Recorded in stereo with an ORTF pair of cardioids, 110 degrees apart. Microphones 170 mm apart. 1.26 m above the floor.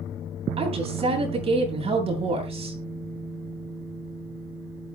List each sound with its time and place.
0.6 s a woman speaking: 35° right, 9.5 m